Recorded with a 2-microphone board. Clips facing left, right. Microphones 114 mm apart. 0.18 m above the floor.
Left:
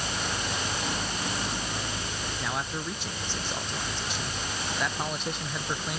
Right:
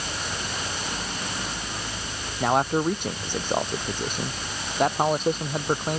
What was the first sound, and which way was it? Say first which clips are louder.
A man speaking: right 14 dB; 55° right (ahead or behind).